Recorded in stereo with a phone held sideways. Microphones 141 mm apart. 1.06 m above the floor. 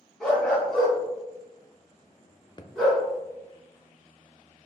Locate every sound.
0.2 s a dog barking: 5° left (ahead or behind), 2.5 m; by 3.0 s centre (ahead or behind), 4.5 m
2.6 s a thud: 30° left (ahead or behind), 0.6 m